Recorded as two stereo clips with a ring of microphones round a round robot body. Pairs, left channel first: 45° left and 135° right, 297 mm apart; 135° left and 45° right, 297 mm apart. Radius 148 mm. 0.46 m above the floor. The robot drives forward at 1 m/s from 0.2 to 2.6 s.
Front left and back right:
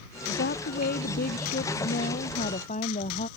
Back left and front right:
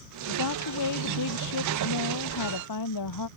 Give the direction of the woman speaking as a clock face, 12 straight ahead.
9 o'clock.